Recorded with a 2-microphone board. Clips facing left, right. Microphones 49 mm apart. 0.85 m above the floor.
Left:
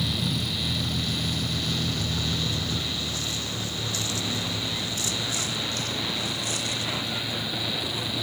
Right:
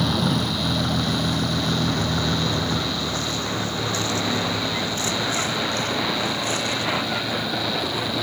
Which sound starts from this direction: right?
A vehicle, at 0.0 s.